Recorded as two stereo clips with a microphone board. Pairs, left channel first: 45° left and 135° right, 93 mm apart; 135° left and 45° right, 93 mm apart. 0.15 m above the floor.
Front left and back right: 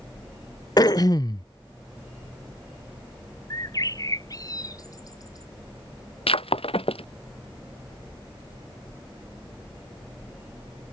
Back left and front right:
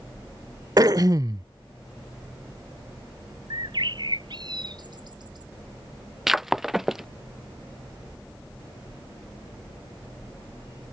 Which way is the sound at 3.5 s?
5° right.